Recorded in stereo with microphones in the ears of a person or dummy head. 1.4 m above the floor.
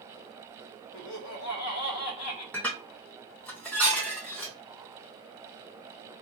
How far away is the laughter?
About 0.8 m.